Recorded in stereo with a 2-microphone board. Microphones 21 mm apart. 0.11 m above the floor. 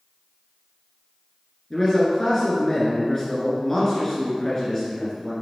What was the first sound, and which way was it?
A man speaking, 25° left (ahead or behind).